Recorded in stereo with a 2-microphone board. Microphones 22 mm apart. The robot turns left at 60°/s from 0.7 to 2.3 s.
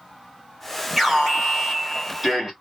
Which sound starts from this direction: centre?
An alarm, at 1.0 s.